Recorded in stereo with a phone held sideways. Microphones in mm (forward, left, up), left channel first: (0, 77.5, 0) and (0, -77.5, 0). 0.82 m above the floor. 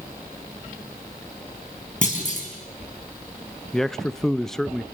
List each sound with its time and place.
2.0 s a clunk: 55° left (ahead or behind), 5.5 m
3.7 s a man speaking: 5° left (ahead or behind), 0.6 m